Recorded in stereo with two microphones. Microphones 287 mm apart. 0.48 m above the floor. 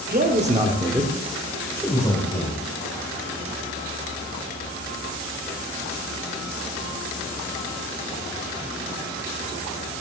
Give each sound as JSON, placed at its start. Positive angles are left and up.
{"t": 0.1, "sound": "a man speaking", "side_deg": -30, "distance_m": 1.3}